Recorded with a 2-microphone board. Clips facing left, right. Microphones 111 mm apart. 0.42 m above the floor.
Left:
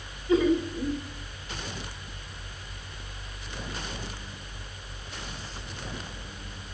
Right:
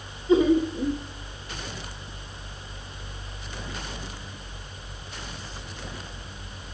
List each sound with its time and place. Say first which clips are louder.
0.3 s laughter: right 4 dB; 20° right (ahead or behind), 0.8 m